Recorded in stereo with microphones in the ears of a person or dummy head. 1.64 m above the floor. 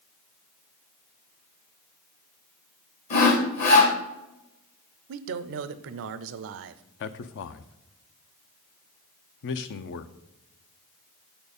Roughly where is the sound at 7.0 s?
Left.